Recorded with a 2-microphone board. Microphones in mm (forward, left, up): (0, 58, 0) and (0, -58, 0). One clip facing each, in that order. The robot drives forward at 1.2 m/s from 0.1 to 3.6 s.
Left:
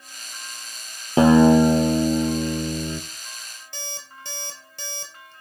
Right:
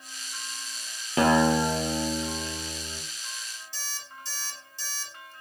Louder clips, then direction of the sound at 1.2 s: Left 8 dB; 30° left (ahead or behind).